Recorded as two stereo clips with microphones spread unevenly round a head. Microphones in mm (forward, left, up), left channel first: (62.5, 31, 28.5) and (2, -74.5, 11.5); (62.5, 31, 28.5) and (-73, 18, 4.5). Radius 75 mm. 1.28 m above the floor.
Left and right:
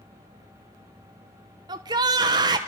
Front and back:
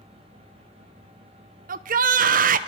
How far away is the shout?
About 0.8 m.